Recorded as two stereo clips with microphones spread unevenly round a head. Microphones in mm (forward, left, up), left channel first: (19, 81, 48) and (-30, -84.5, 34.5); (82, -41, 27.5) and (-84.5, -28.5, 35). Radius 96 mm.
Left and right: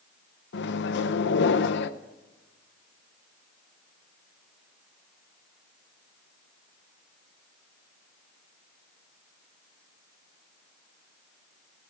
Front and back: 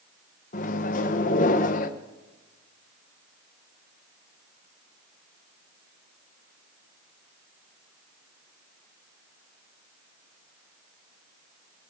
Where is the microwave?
45° left, 0.7 m.